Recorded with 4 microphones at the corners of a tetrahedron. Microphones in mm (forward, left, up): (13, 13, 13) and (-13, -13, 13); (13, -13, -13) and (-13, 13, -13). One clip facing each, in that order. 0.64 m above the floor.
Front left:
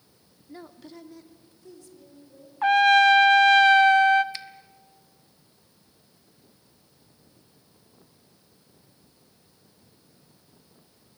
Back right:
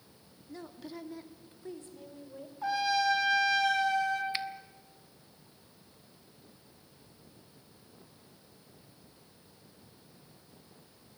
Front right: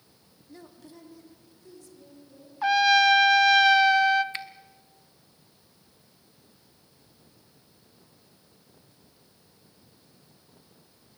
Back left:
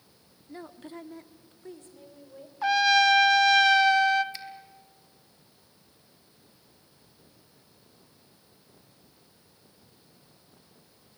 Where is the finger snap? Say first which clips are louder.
Back right 4 dB, front right 6 dB; 70° right, 1.0 m.